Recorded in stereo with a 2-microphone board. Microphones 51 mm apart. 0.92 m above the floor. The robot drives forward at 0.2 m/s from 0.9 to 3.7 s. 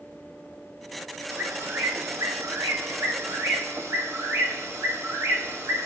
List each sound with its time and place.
1.3 s a bird: 60° right (ahead or behind), 1.1 m